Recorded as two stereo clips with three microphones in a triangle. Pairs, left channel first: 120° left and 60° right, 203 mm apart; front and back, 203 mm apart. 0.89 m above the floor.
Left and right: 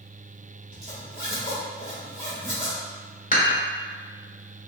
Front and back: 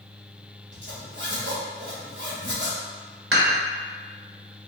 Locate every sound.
0.7 s a zipper: 160° left, 1.7 m
3.3 s dishes clattering: 170° left, 1.4 m